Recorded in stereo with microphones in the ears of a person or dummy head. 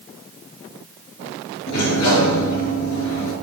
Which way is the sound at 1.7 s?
70° left (ahead or behind).